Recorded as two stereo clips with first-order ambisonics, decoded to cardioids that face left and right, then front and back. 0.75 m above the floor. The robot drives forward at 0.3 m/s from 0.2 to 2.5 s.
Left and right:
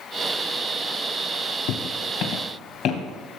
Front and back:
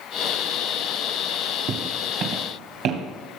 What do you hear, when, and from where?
1.7 s footsteps: 130° left, 1.9 m; by 3.0 s 150° left, 3 m